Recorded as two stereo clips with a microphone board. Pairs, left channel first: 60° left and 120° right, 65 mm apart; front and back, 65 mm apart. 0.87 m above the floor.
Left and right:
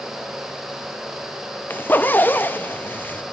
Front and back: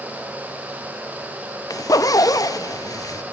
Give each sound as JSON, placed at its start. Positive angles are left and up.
{"t": 1.7, "sound": "a zipper", "azimuth_deg": 5, "distance_m": 0.5}